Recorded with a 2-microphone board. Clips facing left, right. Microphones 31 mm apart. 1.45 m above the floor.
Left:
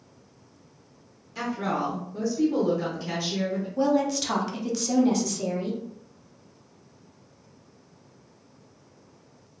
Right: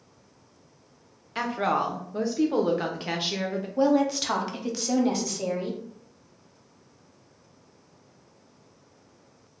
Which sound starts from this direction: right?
A woman speaking, at 1.4 s.